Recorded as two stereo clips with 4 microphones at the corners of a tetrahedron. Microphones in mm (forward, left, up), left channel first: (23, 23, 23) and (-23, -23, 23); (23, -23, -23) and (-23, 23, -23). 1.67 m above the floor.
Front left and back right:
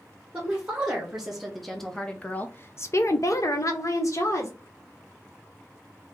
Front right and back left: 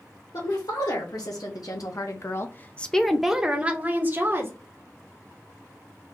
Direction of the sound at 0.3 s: 60° right.